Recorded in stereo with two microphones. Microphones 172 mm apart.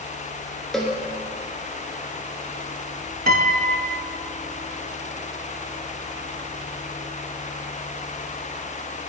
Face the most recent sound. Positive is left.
turn(degrees=-55)  # may be behind; listen again after turning